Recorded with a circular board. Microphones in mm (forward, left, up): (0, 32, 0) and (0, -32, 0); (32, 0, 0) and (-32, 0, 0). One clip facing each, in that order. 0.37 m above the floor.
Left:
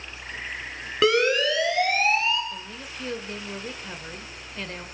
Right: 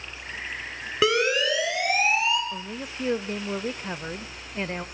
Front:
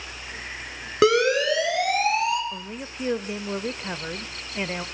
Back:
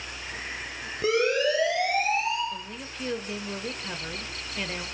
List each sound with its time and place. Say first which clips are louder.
1.0 s a siren: left 2 dB, front 5 dB; straight ahead, 6.5 m; by 2.4 s 15° right, 5.5 m
2.5 s a woman speaking: right 4 dB, front 2 dB; 50° right, 0.9 m